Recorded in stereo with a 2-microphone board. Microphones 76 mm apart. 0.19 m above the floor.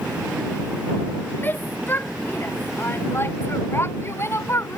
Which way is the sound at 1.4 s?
25° left (ahead or behind).